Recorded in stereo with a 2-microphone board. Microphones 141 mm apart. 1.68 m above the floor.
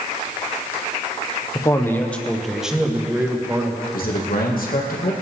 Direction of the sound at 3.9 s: 80° left.